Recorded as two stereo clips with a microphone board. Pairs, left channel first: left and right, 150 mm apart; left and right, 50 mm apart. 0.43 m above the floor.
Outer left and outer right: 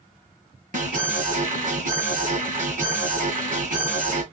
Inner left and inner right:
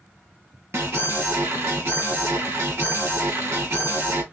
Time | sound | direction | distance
0.7 | an alarm | 60° right (ahead or behind) | 2.0 m